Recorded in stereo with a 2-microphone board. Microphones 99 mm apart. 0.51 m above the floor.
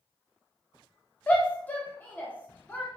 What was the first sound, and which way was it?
A shout, 20° left (ahead or behind).